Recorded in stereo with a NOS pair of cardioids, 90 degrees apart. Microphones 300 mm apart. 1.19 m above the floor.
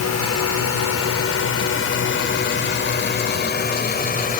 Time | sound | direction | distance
0.0 | a drone | 60° left | ?